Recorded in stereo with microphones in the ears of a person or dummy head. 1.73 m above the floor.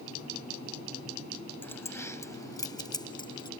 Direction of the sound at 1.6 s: 10° left (ahead or behind).